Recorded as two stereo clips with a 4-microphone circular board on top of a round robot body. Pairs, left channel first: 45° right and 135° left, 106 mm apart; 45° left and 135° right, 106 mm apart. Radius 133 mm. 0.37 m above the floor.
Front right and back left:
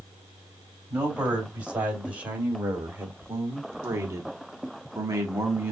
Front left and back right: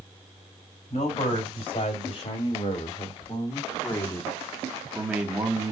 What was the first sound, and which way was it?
A man speaking, 55° left.